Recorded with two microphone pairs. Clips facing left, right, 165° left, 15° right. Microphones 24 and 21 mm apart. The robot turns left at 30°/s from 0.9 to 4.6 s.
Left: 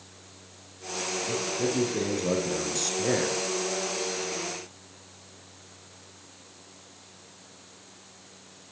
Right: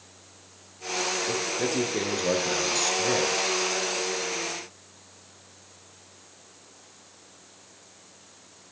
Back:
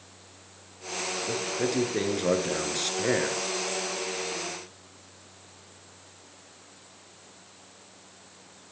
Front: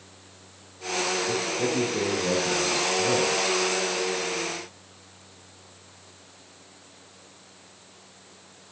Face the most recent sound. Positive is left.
turn(degrees=135)